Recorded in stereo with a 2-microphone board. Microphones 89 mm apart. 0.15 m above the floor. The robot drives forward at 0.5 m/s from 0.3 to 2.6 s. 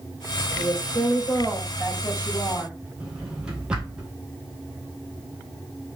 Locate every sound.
0.6 s a woman speaking: 40° left (ahead or behind), 5.5 m; by 2.7 s 35° left (ahead or behind), 6.5 m
3.0 s a drawer: 10° right (ahead or behind), 2.5 m